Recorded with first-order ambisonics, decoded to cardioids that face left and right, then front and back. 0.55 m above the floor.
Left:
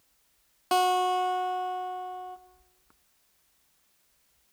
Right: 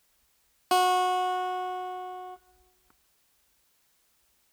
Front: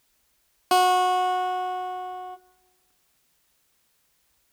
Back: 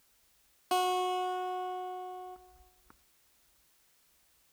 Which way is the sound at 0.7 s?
10° right.